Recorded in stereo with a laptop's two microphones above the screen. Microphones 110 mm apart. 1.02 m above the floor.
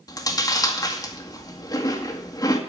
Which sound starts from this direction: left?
Chewing, at 0.1 s.